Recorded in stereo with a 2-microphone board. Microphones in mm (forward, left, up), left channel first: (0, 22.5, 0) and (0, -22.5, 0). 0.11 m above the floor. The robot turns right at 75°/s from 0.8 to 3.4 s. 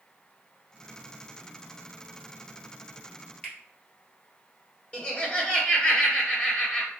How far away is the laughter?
About 1.8 m.